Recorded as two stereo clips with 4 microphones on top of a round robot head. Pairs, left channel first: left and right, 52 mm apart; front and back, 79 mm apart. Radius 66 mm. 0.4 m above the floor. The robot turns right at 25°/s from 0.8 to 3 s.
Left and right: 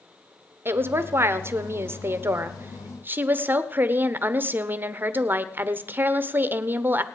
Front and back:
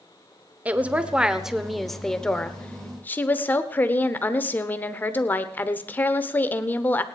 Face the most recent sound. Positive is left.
turn(degrees=-55)